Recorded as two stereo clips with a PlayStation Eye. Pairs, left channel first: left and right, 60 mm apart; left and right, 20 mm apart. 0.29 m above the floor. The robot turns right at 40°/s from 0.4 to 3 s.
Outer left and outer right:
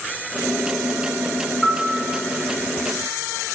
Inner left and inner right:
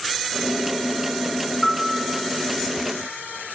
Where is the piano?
10° right (ahead or behind), 1.0 m; by 2.1 s 20° right (ahead or behind), 1.0 m.